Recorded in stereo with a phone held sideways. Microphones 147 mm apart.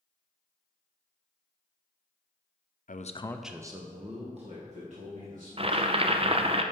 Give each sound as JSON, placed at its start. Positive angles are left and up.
{"t": 2.9, "sound": "a man speaking", "side_deg": 65, "distance_m": 0.7}
{"t": 5.6, "sound": "boiling", "side_deg": -40, "distance_m": 0.6}